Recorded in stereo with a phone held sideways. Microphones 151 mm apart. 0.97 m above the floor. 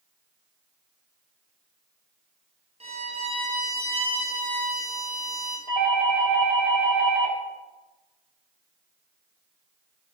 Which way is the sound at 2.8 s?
40° right (ahead or behind).